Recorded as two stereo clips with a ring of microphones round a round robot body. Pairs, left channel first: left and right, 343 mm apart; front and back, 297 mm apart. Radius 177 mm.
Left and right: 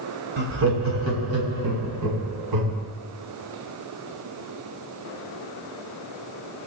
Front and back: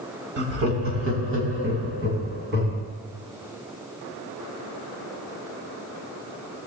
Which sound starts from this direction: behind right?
Laughter, at 0.4 s.